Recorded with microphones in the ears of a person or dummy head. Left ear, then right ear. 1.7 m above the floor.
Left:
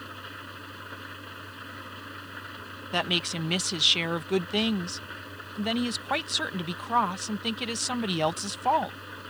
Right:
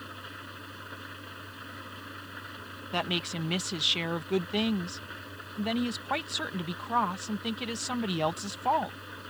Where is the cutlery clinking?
I don't hear cutlery clinking.